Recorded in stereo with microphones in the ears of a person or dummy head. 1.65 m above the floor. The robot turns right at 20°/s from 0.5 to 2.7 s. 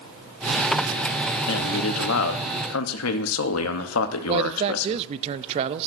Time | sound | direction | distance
1.5 | a man speaking | 65° left (ahead or behind) | 1.0 m
4.3 | a man speaking | 35° right (ahead or behind) | 0.5 m